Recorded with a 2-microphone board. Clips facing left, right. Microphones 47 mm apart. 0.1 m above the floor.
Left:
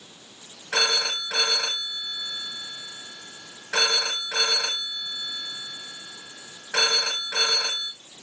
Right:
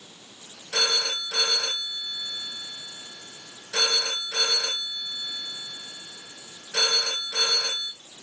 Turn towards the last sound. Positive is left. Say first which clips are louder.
# left 2 dB
turn(degrees=75)  # may be behind; listen again after turning